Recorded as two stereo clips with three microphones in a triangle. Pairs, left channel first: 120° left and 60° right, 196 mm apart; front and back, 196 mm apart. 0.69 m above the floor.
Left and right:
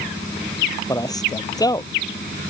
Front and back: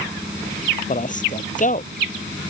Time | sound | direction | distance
0.9 | a man speaking | 50° left | ?